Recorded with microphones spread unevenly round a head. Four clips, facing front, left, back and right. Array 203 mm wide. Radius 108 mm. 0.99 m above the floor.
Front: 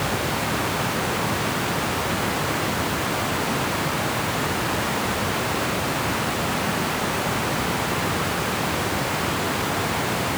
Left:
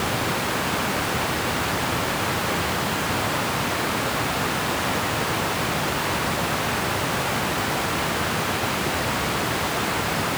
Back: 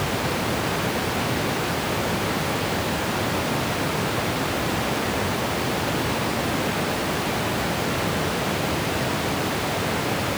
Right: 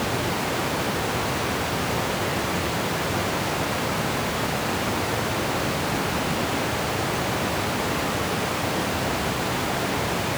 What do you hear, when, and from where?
Only background noise.